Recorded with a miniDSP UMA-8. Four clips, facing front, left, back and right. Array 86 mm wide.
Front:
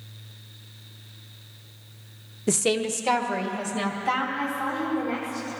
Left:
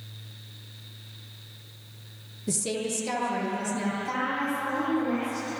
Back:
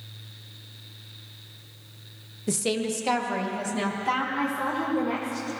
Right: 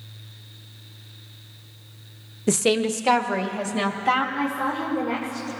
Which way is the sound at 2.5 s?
60° right.